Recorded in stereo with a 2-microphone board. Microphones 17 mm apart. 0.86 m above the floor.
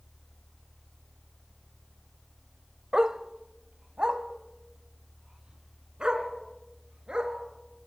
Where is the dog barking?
45° right (ahead or behind), 0.8 m; by 7.9 s 60° right (ahead or behind), 3.5 m.